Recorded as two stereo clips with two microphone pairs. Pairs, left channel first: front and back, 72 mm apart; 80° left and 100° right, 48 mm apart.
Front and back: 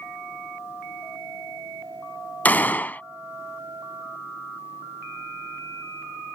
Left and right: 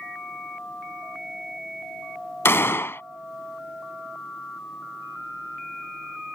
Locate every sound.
2.5 s a gunshot: 65° left